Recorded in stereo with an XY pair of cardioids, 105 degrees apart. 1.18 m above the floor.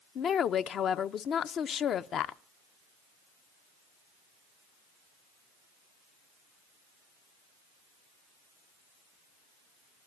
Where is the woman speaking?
60° left, 0.7 m.